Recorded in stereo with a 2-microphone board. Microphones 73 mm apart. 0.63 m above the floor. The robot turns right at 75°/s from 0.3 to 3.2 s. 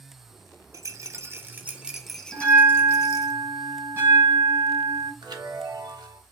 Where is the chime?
75° right (ahead or behind), 1.0 m.